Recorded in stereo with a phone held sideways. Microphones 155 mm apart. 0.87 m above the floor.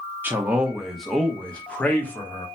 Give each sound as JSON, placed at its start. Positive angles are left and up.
{"t": 0.2, "sound": "a man speaking", "side_deg": -10, "distance_m": 0.5}